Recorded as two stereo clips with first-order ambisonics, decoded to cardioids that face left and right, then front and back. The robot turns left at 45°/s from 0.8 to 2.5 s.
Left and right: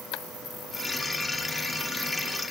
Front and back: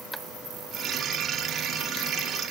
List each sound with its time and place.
Only background noise.